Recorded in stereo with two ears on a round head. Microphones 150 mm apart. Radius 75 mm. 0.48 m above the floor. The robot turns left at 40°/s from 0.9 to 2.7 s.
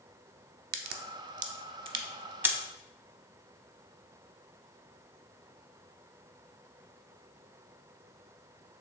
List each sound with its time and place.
0.7 s a crack: 60° right (ahead or behind), 0.5 m; by 2.5 s 10° right (ahead or behind), 0.5 m